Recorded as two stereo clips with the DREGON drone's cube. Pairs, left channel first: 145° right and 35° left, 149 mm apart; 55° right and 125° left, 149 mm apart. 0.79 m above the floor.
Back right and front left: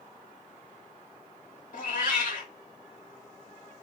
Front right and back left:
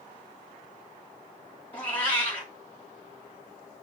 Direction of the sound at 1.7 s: 135° right.